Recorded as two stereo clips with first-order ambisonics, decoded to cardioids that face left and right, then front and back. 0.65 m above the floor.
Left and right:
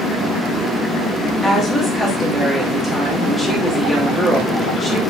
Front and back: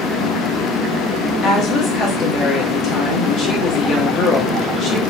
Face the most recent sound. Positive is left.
turn(degrees=10)